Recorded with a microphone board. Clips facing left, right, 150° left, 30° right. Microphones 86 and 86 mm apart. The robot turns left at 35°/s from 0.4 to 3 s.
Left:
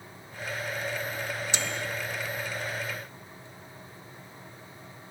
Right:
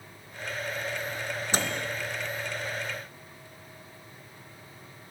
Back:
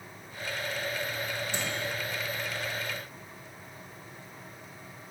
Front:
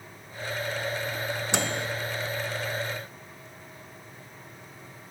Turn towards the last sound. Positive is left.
turn(degrees=-90)